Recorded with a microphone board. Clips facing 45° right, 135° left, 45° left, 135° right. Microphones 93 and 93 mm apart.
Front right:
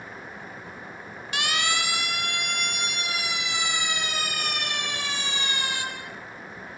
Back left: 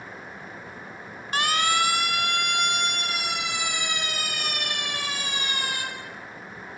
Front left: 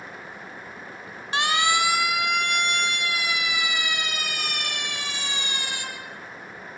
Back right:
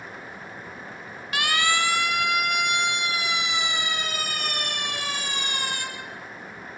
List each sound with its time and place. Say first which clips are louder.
1.3 s a siren: back left 5 dB, front left 2 dB; 95° left, 3 m; by 5.8 s 175° right, 7 m